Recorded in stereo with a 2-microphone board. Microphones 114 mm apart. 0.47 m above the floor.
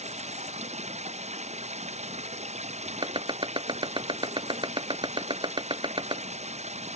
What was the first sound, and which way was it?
Running water, 70° right (ahead or behind).